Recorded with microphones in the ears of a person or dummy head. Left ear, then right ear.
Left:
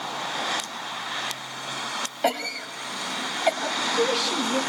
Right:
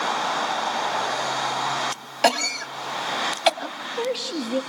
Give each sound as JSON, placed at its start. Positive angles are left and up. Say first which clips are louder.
{"t": 2.2, "sound": "a cough", "louder": "right 6 dB", "side_deg": -65, "distance_m": 1.8}
{"t": 3.6, "sound": "a woman speaking", "louder": "left 4 dB", "side_deg": 5, "distance_m": 2.0}